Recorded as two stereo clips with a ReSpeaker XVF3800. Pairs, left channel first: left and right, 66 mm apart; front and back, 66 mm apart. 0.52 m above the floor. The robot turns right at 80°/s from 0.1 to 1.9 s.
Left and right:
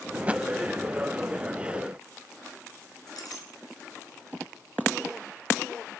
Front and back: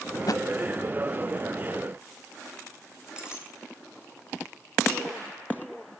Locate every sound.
0.1 s a thud: 30° right, 0.8 m; by 0.5 s 10° right, 0.8 m
3.1 s a clink: 100° left, 5 m